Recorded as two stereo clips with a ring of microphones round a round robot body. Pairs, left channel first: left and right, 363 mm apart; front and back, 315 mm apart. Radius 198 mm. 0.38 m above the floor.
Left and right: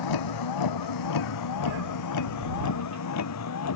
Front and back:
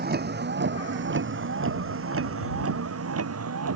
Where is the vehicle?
120° left; by 3.8 s 140° left.